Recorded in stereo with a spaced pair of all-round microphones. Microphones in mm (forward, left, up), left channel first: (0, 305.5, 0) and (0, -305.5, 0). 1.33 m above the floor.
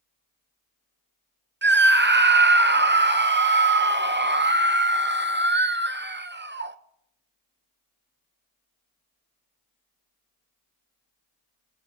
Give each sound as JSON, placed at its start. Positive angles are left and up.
{"t": 1.6, "sound": "a scream", "side_deg": -20, "distance_m": 0.5}